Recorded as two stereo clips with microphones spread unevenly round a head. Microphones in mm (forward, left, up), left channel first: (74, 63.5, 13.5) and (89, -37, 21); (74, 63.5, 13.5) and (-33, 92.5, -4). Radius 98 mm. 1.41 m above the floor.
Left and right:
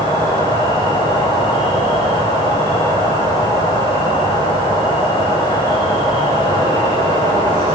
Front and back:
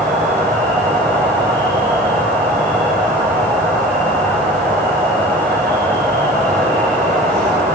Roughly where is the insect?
Behind right.